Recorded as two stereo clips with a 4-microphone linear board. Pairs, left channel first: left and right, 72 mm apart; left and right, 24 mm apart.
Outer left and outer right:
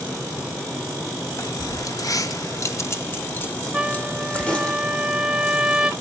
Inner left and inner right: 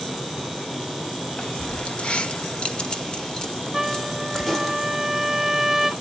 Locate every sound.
1.4 s keys jangling: 50° left (ahead or behind), 0.9 m; by 4.7 s 15° left (ahead or behind), 1.5 m
3.7 s a trumpet: 5° right (ahead or behind), 1.5 m